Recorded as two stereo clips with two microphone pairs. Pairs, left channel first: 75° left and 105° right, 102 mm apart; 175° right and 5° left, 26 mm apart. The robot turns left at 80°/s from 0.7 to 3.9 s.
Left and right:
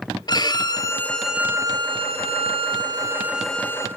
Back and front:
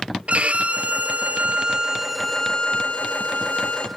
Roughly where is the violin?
Ahead left.